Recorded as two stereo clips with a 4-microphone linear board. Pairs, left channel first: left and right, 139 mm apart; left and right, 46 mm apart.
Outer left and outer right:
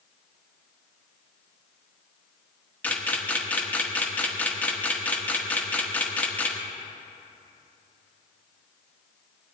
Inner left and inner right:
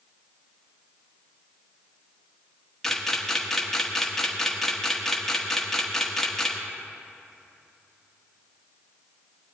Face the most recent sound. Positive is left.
turn(degrees=10)  # may be behind; listen again after turning